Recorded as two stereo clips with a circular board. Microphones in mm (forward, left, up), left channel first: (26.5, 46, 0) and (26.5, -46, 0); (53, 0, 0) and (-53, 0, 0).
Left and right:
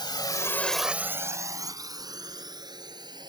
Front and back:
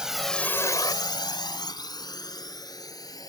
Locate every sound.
0.0 s a drone: 100° left; by 3.3 s 55° right